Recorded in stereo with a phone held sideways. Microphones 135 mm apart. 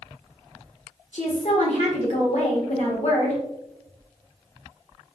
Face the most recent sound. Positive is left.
turn(degrees=65)  # may be behind; listen again after turning